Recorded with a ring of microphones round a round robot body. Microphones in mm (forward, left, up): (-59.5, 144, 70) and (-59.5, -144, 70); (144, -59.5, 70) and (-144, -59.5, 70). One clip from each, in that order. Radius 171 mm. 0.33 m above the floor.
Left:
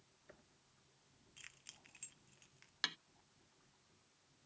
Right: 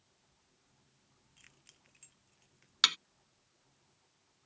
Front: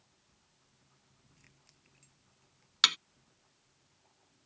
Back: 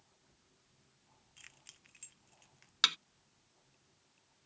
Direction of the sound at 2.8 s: 65° right.